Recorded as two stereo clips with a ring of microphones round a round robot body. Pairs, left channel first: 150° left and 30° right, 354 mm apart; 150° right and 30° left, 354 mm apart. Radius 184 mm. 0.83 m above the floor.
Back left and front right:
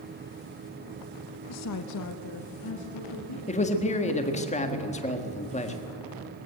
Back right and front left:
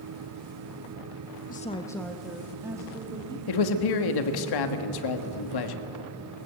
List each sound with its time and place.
1.5 s a woman speaking: 155° left, 0.8 m; by 3.4 s 105° left, 2.5 m
3.5 s a man speaking: 140° right, 1.5 m